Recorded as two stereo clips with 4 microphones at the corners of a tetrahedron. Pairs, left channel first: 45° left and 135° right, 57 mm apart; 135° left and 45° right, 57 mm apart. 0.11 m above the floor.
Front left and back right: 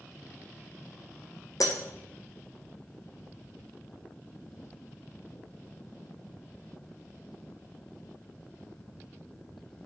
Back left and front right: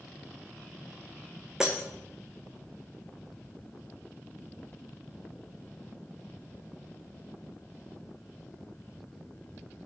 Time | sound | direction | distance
1.6 | breaking glass | 35° left | 1.5 m